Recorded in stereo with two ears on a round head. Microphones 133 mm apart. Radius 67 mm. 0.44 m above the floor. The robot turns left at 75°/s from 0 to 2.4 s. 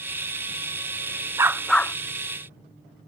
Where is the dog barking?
160° right; by 2.0 s 160° left.